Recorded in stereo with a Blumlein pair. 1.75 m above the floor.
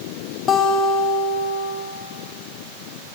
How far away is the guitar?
About 0.9 m.